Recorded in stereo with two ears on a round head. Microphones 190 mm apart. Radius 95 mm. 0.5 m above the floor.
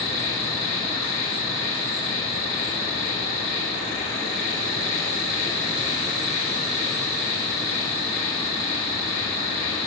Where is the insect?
65° left (ahead or behind), 8.5 m.